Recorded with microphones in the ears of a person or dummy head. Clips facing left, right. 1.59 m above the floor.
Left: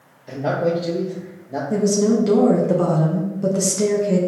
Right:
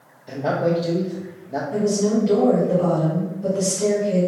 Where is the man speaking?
5° left (ahead or behind), 0.6 m.